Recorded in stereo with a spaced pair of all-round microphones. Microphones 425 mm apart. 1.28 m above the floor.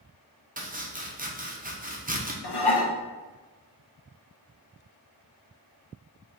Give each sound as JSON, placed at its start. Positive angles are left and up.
{"t": 0.6, "sound": "chopping", "side_deg": -20, "distance_m": 0.7}
{"t": 2.4, "sound": "dishes clattering", "side_deg": 65, "distance_m": 0.6}